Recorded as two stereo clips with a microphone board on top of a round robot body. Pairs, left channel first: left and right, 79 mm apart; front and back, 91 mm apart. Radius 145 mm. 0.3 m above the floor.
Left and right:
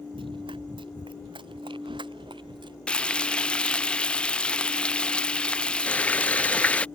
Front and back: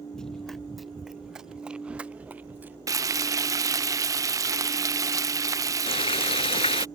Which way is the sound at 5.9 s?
20° left.